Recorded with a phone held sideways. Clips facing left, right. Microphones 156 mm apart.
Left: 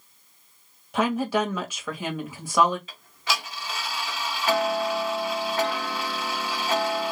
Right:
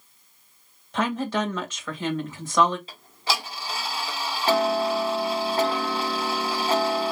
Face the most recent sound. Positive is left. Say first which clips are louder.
# right 2 dB
turn(degrees=-30)  # may be behind; listen again after turning